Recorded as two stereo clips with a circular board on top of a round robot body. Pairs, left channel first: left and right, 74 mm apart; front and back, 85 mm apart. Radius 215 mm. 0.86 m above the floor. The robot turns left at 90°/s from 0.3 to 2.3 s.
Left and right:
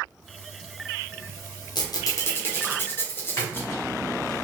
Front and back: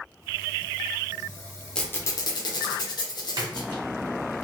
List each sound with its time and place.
1.8 s a squeak: 80° left, 0.9 m; by 3.7 s 30° left, 0.9 m
3.4 s a splash: 145° left, 1.6 m